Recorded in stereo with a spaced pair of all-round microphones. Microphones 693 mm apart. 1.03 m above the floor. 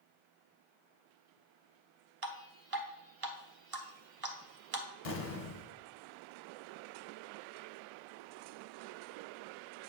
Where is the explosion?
55° left (ahead or behind), 1.0 m.